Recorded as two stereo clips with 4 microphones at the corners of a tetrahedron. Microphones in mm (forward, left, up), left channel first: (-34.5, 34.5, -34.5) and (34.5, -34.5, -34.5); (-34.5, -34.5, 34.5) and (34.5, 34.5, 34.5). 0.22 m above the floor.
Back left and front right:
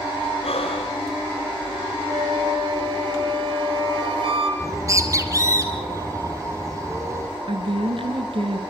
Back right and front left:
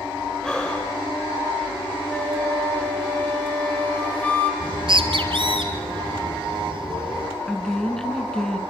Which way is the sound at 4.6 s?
10° left.